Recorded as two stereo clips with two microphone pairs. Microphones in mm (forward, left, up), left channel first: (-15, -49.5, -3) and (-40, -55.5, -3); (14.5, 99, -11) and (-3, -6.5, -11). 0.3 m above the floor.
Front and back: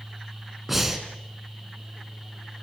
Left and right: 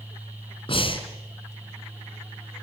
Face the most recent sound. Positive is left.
turn(degrees=110)